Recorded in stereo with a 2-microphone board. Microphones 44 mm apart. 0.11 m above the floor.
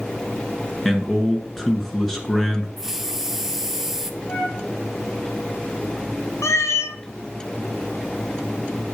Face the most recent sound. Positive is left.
turn(degrees=85)